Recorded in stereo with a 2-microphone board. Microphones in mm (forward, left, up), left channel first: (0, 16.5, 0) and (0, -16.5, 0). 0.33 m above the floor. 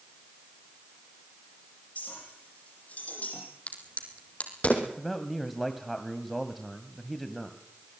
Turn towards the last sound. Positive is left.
turn(degrees=5)  # may be behind; listen again after turning